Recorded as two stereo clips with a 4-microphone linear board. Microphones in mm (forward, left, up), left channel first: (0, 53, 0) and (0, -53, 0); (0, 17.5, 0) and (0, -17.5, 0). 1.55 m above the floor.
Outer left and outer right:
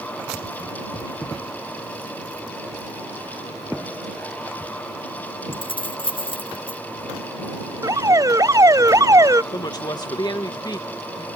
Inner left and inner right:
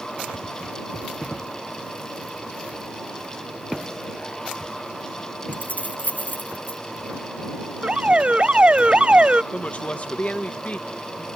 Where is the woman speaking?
40° left (ahead or behind).